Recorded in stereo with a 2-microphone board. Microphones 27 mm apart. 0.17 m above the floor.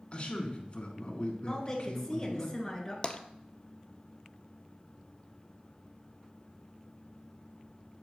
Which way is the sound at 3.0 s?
35° left (ahead or behind).